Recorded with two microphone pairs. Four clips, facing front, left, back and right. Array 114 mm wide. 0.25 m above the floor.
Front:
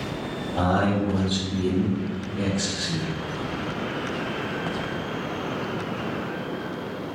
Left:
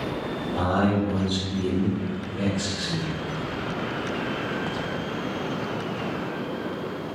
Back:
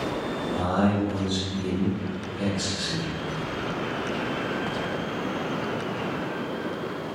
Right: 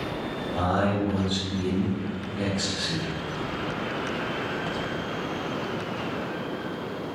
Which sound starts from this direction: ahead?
A man speaking, at 0.6 s.